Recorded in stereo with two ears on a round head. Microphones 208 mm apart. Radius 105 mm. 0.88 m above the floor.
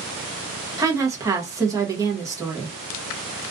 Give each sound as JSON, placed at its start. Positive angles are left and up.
{"t": 0.8, "sound": "a woman speaking", "side_deg": -15, "distance_m": 0.7}